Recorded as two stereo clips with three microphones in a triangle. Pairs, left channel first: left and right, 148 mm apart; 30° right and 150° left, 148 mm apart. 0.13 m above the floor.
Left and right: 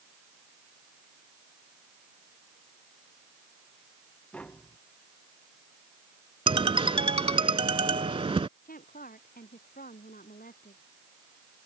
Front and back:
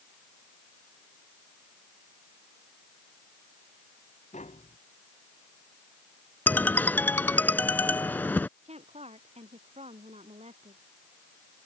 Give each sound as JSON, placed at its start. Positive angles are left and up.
{"t": 4.3, "sound": "tapping", "azimuth_deg": 10}
{"t": 6.5, "sound": "a ringtone", "azimuth_deg": -100}
{"t": 8.7, "sound": "a woman speaking", "azimuth_deg": 105}